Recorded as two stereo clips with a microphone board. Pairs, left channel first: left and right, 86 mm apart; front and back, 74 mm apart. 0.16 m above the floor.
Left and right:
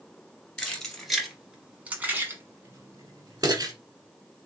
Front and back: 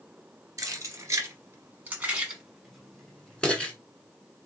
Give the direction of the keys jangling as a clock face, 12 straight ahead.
6 o'clock.